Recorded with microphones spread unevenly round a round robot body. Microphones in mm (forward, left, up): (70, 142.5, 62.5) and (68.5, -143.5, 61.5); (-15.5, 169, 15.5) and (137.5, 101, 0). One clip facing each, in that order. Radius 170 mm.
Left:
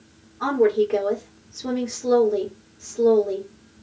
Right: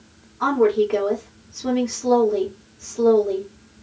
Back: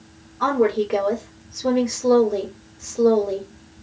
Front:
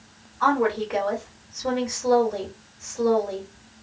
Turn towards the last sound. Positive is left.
turn(degrees=-175)